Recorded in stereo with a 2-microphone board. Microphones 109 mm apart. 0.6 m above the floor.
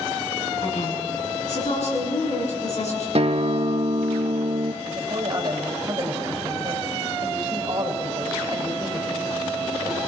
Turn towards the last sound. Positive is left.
turn(degrees=-40)  # may be behind; listen again after turning